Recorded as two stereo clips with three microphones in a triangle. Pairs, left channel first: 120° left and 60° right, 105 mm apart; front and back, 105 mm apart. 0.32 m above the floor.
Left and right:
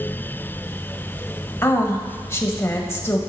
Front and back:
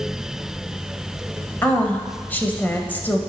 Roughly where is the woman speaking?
Ahead left.